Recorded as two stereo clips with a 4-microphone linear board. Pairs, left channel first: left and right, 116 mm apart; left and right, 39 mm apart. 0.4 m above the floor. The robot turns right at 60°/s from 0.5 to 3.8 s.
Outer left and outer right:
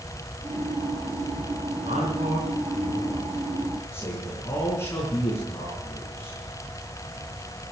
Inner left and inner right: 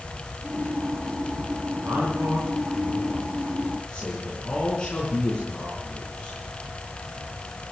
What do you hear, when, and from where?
1.7 s a man speaking: 100° right, 5.5 m; by 6.4 s 25° left, 5.5 m